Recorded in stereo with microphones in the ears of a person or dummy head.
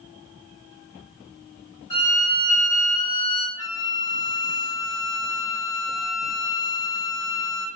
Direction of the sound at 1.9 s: 20° left (ahead or behind).